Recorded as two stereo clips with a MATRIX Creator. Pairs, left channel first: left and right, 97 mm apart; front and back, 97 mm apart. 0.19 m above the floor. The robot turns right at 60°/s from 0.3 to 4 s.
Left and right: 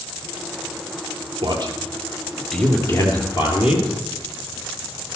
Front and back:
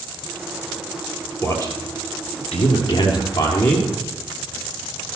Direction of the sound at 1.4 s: 65° right.